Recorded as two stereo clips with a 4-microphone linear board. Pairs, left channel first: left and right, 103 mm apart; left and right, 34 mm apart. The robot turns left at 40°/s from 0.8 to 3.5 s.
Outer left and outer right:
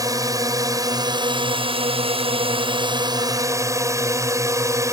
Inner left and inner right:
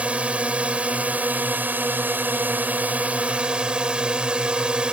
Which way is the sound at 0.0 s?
40° right.